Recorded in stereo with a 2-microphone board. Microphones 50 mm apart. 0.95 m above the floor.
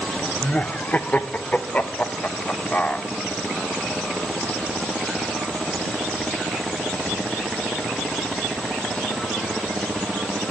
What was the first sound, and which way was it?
Laughter, 30° left (ahead or behind).